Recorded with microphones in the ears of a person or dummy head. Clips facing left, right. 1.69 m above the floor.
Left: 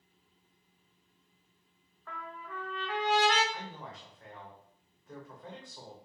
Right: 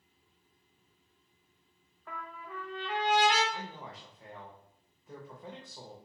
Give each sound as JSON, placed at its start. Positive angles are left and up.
{"t": 2.1, "sound": "a trumpet", "side_deg": -10, "distance_m": 0.7}
{"t": 3.5, "sound": "a man speaking", "side_deg": -10, "distance_m": 0.7}